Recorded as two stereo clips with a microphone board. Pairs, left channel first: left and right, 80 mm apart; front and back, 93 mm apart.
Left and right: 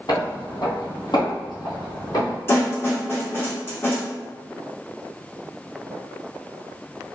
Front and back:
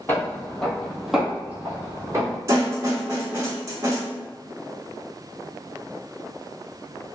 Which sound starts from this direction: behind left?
A snare drum, at 2.5 s.